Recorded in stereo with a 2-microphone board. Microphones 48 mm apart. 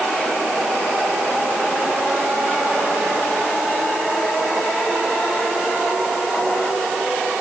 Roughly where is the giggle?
No giggle in this recording.